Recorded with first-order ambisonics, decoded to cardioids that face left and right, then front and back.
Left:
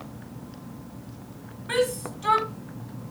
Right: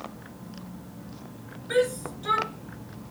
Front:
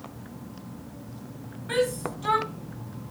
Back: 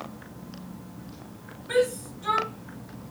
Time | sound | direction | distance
1.7 | a shout | 60° left | 4.5 m